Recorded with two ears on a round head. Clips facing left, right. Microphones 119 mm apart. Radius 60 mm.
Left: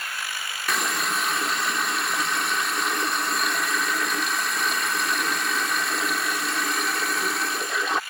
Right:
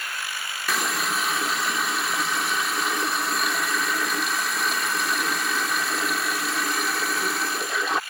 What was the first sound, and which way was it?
A running tap, centre (ahead or behind).